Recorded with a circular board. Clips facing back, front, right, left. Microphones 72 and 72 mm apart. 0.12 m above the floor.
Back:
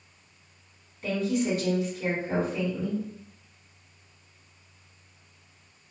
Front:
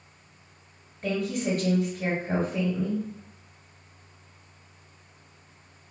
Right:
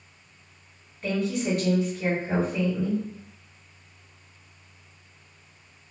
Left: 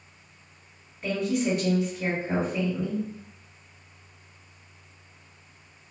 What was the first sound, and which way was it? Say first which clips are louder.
A woman speaking: back 1 dB, left 1 dB; 15° left.